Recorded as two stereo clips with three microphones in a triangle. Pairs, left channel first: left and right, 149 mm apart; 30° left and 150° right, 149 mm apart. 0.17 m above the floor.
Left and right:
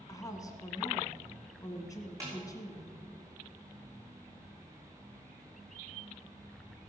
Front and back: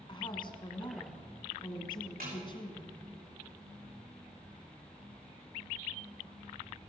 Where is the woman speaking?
45° left, 1.4 m.